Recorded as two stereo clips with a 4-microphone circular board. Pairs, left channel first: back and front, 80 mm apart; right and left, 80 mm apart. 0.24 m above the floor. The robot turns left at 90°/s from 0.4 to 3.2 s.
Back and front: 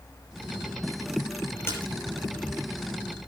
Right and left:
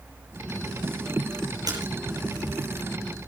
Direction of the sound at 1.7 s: 125° left.